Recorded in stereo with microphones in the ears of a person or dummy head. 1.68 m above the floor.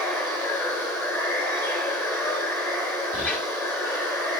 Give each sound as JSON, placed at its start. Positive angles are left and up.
{"t": 0.0, "sound": "running water", "side_deg": 10, "distance_m": 4.0}
{"t": 3.1, "sound": "a squeak", "side_deg": 5, "distance_m": 3.0}